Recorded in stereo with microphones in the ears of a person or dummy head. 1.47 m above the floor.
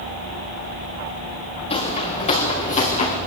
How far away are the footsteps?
About 6.5 m.